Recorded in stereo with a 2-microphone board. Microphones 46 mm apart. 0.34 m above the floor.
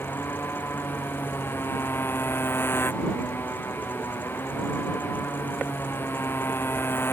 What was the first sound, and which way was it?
A motorcycle, 60° left (ahead or behind).